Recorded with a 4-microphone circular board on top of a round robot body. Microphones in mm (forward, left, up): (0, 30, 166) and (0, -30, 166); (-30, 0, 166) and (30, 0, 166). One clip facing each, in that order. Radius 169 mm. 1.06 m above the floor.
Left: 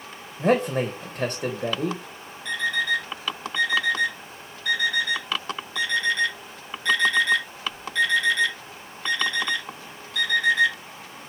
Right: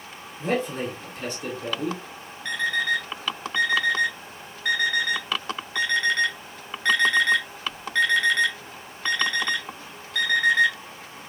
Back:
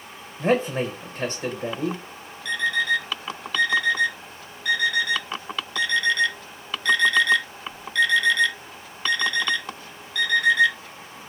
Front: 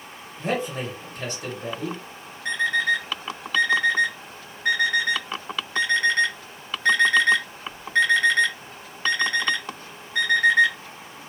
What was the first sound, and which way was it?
A man speaking, 110° left.